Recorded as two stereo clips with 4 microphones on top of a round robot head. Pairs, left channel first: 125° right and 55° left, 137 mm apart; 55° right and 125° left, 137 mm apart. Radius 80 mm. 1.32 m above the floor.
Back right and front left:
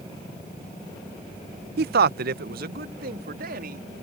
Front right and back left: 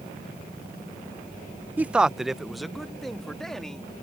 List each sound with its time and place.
1.8 s a man speaking: 50° left; by 3.9 s 35° left